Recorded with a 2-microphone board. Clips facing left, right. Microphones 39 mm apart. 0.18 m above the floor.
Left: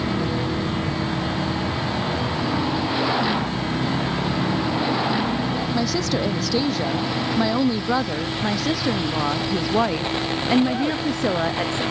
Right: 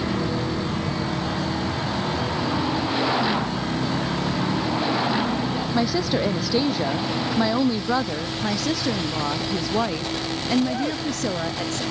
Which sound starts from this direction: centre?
A woman speaking, at 5.7 s.